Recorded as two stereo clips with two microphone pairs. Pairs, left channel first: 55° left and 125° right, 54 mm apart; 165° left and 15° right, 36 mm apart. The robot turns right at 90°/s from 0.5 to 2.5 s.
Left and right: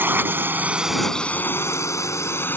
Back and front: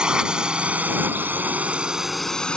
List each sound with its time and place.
0.0 s a drone: 75° right; by 2.6 s 105° left